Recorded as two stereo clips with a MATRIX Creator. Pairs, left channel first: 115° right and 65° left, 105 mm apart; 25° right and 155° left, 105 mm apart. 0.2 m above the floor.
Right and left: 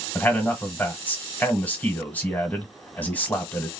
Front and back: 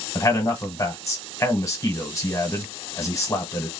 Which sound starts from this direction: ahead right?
A man speaking, at 0.1 s.